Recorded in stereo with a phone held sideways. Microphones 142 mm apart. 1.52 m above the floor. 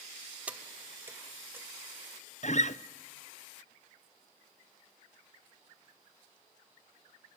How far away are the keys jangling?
About 0.6 m.